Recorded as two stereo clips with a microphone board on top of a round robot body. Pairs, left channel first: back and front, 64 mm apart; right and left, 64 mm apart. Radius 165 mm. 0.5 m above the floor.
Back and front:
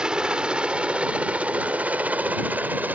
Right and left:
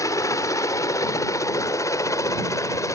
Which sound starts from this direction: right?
A helicopter, at 0.0 s.